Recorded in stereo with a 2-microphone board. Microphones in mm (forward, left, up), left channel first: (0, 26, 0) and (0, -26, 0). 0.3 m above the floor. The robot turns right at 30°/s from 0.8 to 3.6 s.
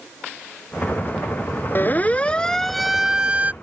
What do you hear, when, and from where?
1.8 s a siren: 45° left (ahead or behind); by 3.5 s 30° right (ahead or behind)